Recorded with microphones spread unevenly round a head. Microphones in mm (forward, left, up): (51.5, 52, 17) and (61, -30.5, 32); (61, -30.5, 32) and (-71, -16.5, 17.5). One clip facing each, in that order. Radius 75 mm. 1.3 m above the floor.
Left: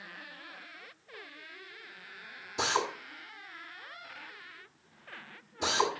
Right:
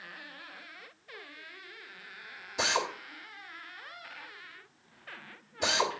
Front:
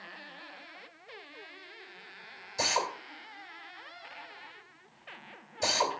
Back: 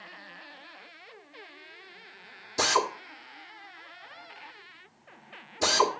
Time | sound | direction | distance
2.6 | a drill | 175° left | 2 m